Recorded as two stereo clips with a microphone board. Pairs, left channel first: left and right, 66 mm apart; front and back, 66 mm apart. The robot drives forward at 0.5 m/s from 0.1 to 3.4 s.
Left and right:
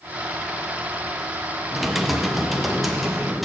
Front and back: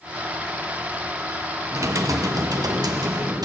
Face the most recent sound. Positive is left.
turn(degrees=180)